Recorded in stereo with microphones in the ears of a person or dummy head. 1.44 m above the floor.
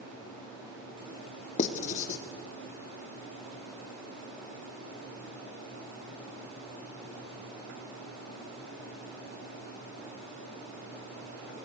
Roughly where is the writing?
Left.